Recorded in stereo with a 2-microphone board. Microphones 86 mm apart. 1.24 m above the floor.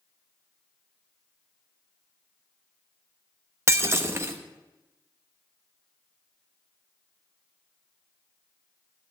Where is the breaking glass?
30° right (ahead or behind), 0.9 m.